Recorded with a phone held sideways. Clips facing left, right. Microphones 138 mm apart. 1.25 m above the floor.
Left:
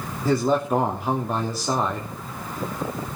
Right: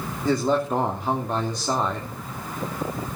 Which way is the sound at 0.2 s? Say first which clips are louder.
Left 1 dB; 5° left (ahead or behind).